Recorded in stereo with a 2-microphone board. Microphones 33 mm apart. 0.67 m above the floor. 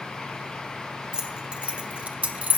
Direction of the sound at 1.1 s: 30° right (ahead or behind).